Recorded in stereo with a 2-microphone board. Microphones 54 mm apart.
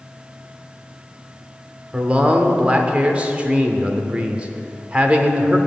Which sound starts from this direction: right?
A man speaking, at 1.9 s.